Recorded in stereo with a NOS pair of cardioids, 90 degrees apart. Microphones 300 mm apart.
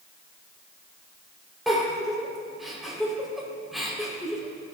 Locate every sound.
1.7 s a giggle: straight ahead, 4.5 m